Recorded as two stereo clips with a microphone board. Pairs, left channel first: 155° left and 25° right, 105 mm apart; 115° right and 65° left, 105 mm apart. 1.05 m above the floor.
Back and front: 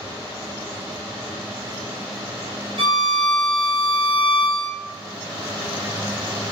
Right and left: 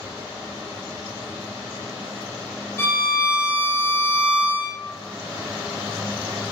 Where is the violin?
50° right, 0.6 m.